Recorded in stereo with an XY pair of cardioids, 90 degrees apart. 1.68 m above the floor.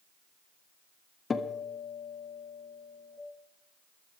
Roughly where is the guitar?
Ahead left.